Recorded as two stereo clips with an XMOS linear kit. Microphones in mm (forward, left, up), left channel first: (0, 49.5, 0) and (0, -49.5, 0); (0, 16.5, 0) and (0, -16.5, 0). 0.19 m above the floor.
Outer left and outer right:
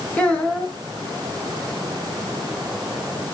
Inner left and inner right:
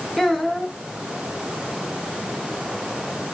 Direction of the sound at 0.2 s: 15° left (ahead or behind).